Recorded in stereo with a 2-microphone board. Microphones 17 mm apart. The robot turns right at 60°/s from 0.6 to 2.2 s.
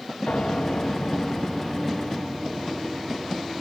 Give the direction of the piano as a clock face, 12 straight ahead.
9 o'clock.